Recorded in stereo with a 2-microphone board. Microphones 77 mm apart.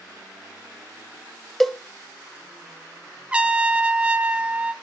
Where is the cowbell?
5° left (ahead or behind), 0.6 m.